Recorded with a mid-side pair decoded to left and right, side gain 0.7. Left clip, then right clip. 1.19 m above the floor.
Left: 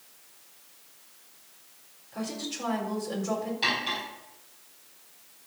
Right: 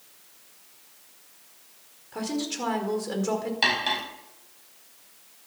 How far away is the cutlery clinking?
About 5 m.